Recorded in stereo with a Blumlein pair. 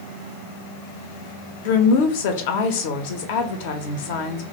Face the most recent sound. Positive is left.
turn(degrees=50)